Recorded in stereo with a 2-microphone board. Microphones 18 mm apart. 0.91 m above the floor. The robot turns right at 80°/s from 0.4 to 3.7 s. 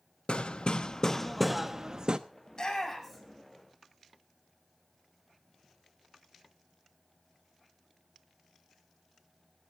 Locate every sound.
0.3 s hammering: 90° left, 0.9 m; by 2.2 s 130° right, 0.9 m
2.5 s a shout: 55° left (ahead or behind), 6.5 m; by 3.4 s 20° right (ahead or behind), 6.5 m